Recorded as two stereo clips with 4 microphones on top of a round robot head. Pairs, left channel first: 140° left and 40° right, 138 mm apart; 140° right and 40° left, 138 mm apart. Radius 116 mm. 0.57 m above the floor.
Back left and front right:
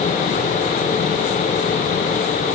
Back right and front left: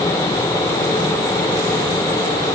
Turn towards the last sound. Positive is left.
No sound to turn to.